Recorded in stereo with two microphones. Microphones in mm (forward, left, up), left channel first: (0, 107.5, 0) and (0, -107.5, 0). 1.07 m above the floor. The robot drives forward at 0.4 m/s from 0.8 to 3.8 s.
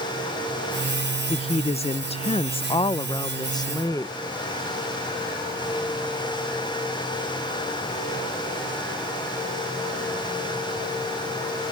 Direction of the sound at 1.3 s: 25° left (ahead or behind).